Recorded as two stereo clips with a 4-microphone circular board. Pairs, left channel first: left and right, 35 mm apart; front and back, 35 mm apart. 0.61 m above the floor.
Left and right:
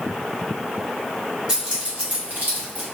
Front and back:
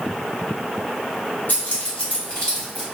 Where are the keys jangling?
30° right, 1.3 m; by 2.8 s 85° right, 1.2 m.